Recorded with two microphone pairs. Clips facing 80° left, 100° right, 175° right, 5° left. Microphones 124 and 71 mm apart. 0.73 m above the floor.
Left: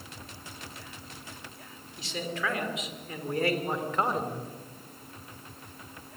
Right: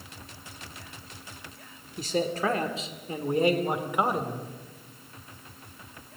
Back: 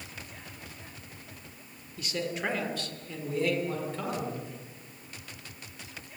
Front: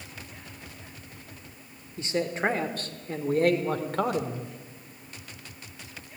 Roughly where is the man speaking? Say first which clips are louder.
Right 7 dB, front 5 dB; ahead right.